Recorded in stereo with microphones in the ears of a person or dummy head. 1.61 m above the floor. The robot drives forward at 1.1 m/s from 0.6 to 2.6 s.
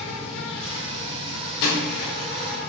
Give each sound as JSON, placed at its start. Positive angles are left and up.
{"t": 0.0, "sound": "an insect", "side_deg": 65, "distance_m": 1.7}
{"t": 1.6, "sound": "a door slam", "side_deg": 60, "distance_m": 0.8}